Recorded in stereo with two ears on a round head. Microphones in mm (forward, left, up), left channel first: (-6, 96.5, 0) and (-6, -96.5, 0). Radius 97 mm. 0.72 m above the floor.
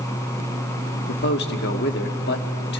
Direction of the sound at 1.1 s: 55° left (ahead or behind).